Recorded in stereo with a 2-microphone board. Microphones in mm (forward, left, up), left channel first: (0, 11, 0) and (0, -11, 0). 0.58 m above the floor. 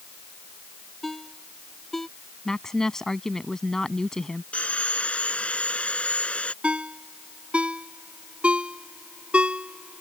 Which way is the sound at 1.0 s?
10° left (ahead or behind).